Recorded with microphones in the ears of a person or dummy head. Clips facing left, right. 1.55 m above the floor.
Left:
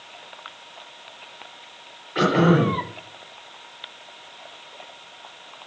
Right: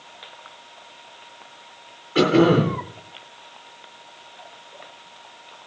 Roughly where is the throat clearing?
Right.